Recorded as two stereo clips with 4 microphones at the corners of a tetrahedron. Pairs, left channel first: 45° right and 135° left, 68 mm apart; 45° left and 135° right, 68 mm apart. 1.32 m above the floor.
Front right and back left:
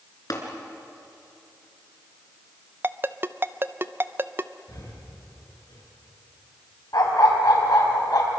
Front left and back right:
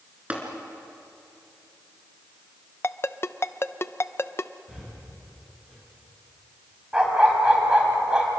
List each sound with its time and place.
0.3 s tapping: 65° right, 3 m
2.8 s a ringtone: 85° left, 0.5 m
4.7 s breathing: 60° right, 6.5 m
6.9 s a dog barking: 60° right, 3.5 m